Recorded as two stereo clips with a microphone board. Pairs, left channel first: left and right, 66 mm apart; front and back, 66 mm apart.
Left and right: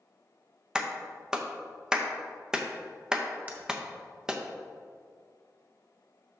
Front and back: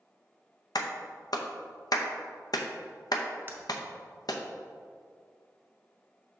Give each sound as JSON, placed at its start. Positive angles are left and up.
{"t": 0.8, "sound": "a clap", "azimuth_deg": -10, "distance_m": 0.6}
{"t": 3.5, "sound": "breaking glass", "azimuth_deg": -145, "distance_m": 1.0}